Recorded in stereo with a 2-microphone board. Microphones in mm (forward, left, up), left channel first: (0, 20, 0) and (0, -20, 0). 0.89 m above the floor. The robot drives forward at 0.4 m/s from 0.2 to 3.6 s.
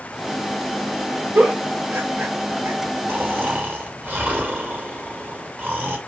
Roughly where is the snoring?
Right.